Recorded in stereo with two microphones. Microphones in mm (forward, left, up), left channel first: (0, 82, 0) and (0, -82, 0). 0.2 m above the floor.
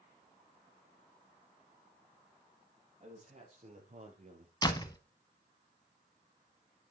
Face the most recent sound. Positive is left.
turn(degrees=25)  # may be behind; listen again after turning